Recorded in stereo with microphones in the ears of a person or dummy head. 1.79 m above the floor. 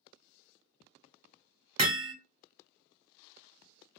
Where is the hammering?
35° right (ahead or behind), 0.8 m.